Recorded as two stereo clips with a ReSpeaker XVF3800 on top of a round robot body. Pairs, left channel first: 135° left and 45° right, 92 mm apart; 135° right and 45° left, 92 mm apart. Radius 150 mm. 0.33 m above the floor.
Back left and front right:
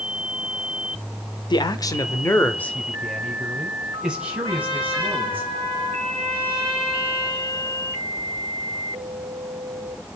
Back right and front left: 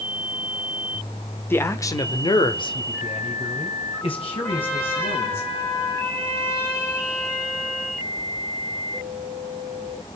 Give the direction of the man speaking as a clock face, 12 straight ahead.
7 o'clock.